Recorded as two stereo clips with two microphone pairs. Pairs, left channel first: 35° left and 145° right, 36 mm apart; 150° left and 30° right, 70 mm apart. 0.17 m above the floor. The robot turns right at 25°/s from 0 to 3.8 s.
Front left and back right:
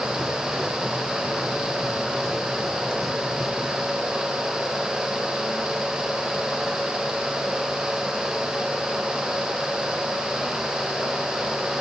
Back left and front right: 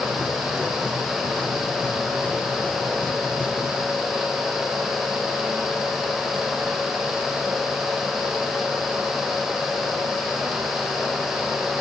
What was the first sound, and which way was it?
Only background noise.